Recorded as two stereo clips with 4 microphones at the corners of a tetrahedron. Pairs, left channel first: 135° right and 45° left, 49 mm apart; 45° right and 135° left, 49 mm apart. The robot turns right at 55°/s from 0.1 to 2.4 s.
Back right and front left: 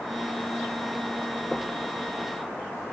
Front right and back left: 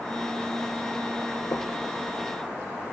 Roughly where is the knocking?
Ahead right.